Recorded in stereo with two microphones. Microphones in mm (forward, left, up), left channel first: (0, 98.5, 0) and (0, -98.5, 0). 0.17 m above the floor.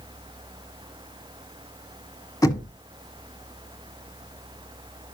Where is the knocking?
15° left (ahead or behind), 1.2 m.